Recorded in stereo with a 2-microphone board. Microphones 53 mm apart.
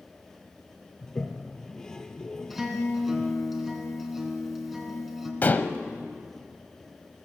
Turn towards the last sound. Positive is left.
turn(degrees=35)  # may be behind; listen again after turning